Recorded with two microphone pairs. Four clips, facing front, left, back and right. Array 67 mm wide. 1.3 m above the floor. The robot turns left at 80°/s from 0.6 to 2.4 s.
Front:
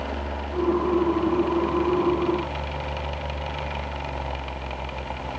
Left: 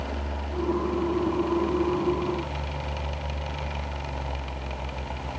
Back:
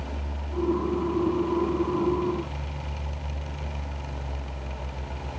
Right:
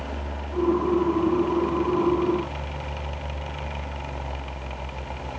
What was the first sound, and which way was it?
Only background noise.